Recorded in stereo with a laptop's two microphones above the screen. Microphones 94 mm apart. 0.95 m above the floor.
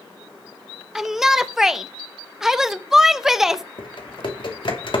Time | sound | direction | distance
0.9 | a shout | 5° right (ahead or behind) | 0.5 m
3.8 | typing on a keyboard | 60° left (ahead or behind) | 2.5 m